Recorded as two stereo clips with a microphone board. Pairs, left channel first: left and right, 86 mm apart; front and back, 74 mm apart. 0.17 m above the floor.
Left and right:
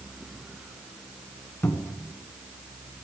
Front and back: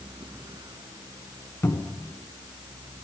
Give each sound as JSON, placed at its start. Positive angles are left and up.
{"t": 1.6, "sound": "a cupboard door", "azimuth_deg": 30, "distance_m": 1.5}